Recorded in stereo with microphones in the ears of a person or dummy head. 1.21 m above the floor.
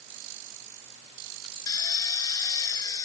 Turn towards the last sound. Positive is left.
turn(degrees=15)  # may be behind; listen again after turning